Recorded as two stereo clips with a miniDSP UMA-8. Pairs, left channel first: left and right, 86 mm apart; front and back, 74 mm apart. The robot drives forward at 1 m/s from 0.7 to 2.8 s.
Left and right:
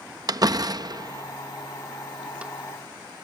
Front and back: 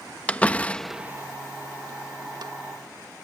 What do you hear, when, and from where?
0.3 s a door slam: 70° right; by 2.5 s 165° right